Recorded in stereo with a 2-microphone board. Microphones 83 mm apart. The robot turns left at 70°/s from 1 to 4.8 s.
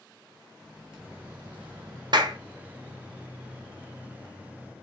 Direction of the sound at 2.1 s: 60° right (ahead or behind).